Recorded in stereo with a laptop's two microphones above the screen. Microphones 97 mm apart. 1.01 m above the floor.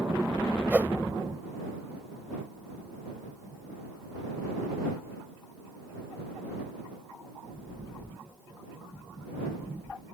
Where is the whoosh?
15° right (ahead or behind).